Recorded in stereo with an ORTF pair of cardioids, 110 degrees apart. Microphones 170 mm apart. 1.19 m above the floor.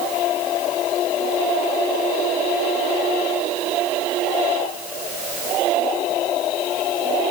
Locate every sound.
Only background noise.